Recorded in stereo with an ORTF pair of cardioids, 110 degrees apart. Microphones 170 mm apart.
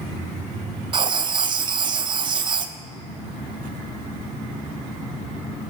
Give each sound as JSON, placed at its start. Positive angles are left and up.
{"t": 0.9, "sound": "writing", "azimuth_deg": -30, "distance_m": 0.5}